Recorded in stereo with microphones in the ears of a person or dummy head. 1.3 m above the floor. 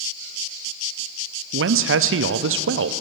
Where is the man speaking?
55° right (ahead or behind), 0.5 m.